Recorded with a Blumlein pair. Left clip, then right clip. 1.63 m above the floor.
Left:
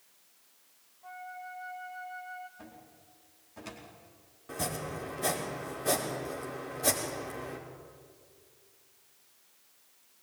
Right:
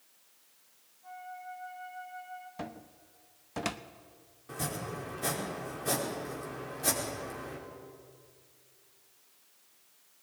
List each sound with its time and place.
1.0 s a flute: 25° left, 2.5 m
2.6 s a cupboard door: 50° right, 1.2 m
4.5 s chopping: 5° left, 5 m